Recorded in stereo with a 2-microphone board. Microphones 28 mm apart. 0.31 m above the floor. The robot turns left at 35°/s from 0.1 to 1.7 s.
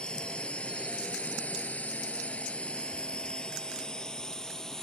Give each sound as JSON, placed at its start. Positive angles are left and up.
{"t": 0.0, "sound": "a drone", "side_deg": 35}